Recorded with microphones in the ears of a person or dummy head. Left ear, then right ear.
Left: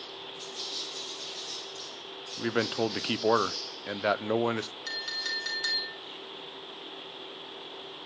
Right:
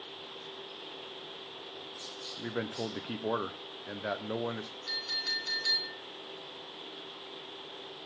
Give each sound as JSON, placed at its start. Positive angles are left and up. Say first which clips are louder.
{"t": 2.4, "sound": "a man speaking", "louder": "left 9 dB", "side_deg": 65, "distance_m": 0.7}
{"t": 4.9, "sound": "a clink", "louder": "right 1 dB", "side_deg": 65, "distance_m": 3.0}